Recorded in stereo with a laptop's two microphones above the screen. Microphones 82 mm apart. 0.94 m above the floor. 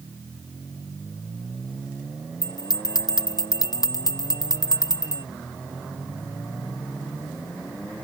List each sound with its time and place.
2.4 s a bell: 55° left (ahead or behind)